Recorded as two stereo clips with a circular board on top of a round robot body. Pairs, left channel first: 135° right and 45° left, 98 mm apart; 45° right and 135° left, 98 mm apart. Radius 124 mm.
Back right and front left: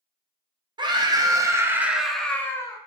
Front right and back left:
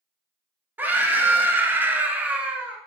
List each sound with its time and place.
0.8 s a scream: 65° left, 1.0 m; by 2.8 s 150° right, 0.8 m